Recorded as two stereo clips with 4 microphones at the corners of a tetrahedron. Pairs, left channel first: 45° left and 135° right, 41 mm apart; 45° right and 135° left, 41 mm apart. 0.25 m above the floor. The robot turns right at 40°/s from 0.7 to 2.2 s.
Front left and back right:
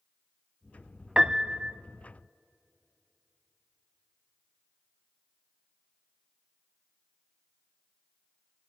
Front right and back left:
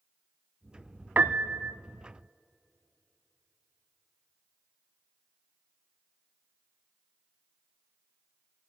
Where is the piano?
155° left, 0.5 m; by 1.8 s straight behind, 0.5 m.